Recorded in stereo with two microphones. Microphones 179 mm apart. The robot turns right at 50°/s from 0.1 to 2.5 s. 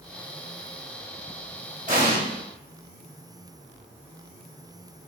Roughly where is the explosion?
Right.